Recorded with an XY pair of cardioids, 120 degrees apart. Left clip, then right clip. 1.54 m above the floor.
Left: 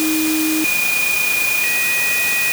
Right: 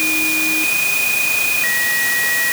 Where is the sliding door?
No sliding door in this recording.